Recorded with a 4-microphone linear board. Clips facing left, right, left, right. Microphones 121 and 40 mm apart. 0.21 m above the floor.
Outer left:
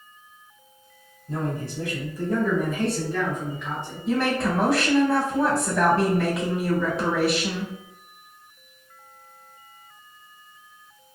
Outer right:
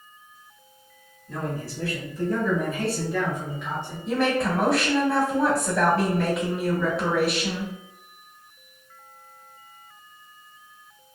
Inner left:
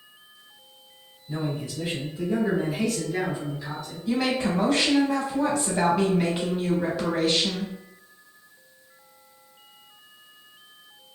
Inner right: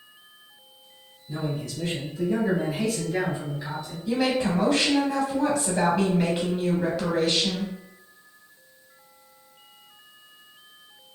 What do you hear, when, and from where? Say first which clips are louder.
1.3 s a man speaking: outer left 2 dB, inner left 1 dB; 30° left (ahead or behind), 1.2 m; by 4.0 s 20° right (ahead or behind), 1.4 m
4.1 s a woman speaking: even, inner right 1 dB; centre (ahead or behind), 1.0 m